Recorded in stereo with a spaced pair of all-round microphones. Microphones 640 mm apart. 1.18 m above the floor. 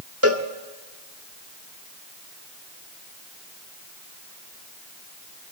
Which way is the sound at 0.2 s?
20° right (ahead or behind).